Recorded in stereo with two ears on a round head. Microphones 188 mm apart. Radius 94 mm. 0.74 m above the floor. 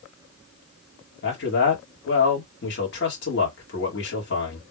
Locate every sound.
1.2 s a man speaking: 55° left (ahead or behind), 1.9 m